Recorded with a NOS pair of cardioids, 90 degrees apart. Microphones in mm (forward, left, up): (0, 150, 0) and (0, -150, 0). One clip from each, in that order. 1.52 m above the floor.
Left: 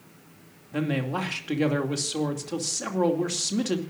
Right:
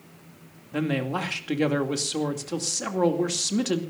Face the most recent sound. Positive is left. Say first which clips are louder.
# right 1 dB
turn(degrees=-10)